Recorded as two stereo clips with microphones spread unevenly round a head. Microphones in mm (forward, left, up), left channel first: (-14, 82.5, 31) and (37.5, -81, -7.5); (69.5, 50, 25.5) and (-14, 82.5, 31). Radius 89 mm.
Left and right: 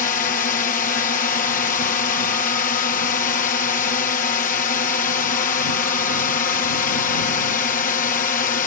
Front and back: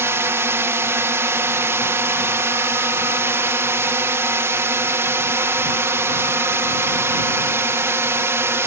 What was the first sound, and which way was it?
A drone, 125° left.